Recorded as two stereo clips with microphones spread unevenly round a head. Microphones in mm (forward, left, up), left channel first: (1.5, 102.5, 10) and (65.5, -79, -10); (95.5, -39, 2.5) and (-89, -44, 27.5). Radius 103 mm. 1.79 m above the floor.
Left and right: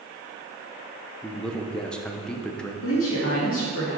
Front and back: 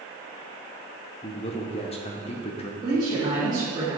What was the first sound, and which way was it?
A man speaking, 40° left.